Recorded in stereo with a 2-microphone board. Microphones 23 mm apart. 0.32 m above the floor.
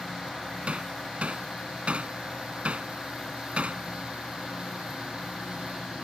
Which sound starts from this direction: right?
Hammering, at 0.7 s.